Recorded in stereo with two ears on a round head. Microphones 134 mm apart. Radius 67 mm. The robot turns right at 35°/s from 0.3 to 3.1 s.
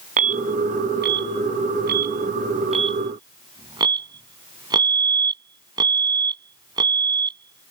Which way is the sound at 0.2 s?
55° right (ahead or behind).